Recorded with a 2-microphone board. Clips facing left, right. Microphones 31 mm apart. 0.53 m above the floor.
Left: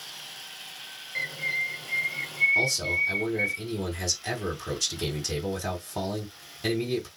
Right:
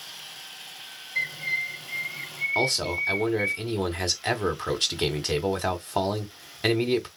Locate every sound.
1.1 s a bird: 55° left (ahead or behind), 1.7 m
2.5 s a man speaking: 45° right (ahead or behind), 1.1 m